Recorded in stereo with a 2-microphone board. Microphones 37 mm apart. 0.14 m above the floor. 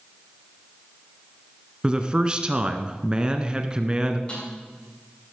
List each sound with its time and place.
1.8 s a man speaking: 25° right (ahead or behind), 1.4 m
4.3 s a snare drum: 30° left (ahead or behind), 7.5 m